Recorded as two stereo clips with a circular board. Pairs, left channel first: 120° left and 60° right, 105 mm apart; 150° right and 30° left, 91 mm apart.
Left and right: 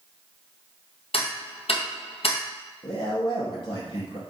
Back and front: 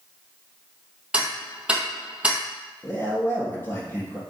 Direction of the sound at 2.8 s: 150° left.